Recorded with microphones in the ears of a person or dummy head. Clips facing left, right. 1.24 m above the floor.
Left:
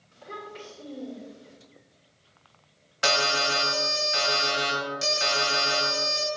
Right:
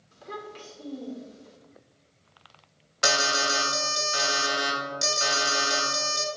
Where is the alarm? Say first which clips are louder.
Left 1 dB; 25° right (ahead or behind), 2 m.